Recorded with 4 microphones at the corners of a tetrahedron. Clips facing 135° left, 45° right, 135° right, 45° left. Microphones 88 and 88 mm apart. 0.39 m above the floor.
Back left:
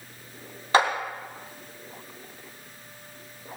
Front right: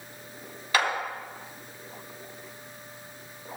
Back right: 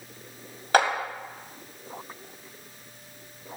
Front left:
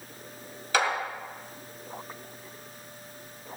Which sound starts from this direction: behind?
A clap, at 0.7 s.